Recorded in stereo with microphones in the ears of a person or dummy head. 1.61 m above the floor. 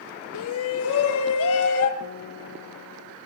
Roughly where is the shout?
Left.